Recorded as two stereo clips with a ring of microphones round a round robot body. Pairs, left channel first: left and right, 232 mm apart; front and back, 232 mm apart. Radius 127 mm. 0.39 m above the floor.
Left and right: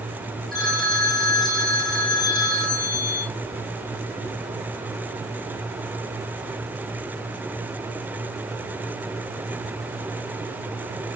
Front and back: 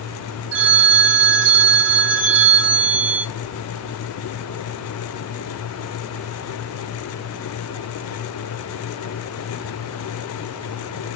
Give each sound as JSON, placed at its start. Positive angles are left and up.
{"t": 0.5, "sound": "a phone ringing", "azimuth_deg": 180, "distance_m": 1.3}